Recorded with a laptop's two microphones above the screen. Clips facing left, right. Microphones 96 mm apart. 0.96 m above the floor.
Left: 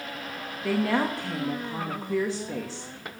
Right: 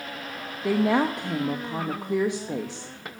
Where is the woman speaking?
15° right (ahead or behind), 0.8 m.